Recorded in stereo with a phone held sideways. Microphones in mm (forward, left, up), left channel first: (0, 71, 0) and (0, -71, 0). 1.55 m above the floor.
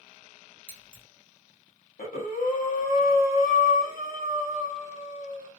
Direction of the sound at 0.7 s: 30° left (ahead or behind).